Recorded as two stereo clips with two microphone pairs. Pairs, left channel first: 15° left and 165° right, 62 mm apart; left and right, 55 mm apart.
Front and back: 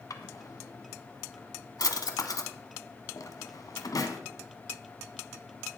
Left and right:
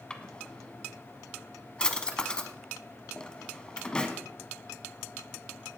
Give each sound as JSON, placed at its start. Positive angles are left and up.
{"t": 0.1, "sound": "a drawer", "azimuth_deg": 15, "distance_m": 1.1}